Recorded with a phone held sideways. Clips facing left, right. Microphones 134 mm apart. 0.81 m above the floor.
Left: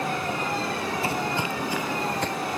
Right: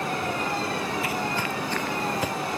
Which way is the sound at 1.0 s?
30° left (ahead or behind).